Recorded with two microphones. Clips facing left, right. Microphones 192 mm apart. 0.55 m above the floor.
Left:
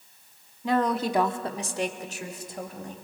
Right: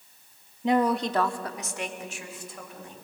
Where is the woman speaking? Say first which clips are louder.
Right 1 dB; 25° right (ahead or behind), 0.7 m; by 3.0 s 40° left (ahead or behind), 2.5 m.